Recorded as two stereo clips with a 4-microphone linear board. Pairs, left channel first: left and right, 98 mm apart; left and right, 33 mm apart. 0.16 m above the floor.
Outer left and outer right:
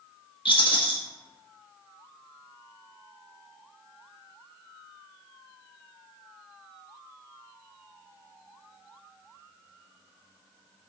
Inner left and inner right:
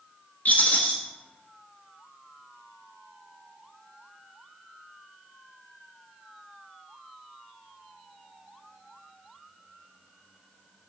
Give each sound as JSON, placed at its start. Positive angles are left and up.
{"t": 0.5, "sound": "a rattle", "side_deg": 60, "distance_m": 1.1}